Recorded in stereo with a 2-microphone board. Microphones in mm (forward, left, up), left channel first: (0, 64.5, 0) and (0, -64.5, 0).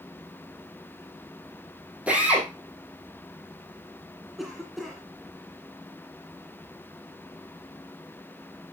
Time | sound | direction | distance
2.1 | a drill | 10° right (ahead or behind) | 4 m
4.4 | a cough | centre (ahead or behind) | 2 m